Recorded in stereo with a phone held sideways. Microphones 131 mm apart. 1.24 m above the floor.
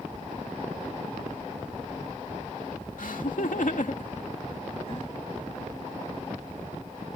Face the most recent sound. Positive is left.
turn(degrees=40)  # may be behind; listen again after turning